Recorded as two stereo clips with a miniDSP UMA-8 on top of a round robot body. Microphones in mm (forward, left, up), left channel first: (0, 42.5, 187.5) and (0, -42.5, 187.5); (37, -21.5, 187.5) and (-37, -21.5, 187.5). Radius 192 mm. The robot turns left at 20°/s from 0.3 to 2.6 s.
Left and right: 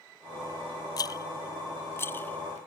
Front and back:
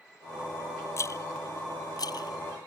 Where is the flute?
I don't hear a flute.